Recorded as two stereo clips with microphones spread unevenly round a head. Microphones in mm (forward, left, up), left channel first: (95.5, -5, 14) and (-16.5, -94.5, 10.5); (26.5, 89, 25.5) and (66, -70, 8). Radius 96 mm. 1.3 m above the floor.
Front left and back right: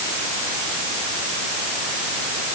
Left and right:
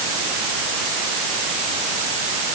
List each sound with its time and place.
Only background noise.